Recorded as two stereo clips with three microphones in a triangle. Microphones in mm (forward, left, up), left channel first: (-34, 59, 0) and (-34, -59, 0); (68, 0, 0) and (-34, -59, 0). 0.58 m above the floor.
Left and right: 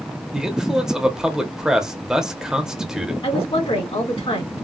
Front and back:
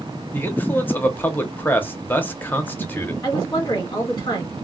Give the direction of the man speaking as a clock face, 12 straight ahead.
1 o'clock.